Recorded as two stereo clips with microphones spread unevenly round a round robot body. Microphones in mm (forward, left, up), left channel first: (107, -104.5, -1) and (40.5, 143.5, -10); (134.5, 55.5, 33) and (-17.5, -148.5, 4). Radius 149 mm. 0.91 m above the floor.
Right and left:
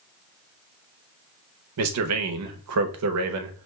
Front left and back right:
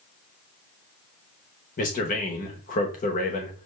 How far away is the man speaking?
About 0.8 m.